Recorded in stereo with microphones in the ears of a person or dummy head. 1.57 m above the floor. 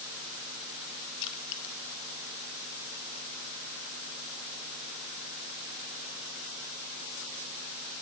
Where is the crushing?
65° left (ahead or behind), 0.8 m.